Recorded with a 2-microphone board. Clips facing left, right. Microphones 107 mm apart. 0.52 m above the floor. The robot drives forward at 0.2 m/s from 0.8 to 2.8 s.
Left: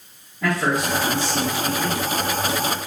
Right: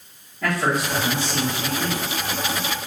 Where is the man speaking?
5° left (ahead or behind), 1.8 m.